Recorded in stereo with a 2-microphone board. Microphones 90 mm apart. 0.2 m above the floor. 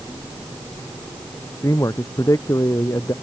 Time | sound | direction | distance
1.6 | a man speaking | 35° left (ahead or behind) | ?